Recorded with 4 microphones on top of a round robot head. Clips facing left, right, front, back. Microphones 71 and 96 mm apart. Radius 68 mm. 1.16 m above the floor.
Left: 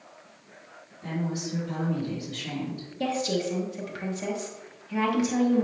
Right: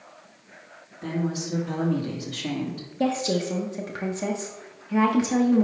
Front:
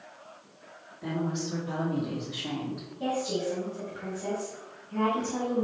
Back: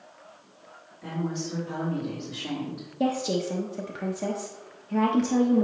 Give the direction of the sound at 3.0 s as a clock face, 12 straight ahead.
5 o'clock.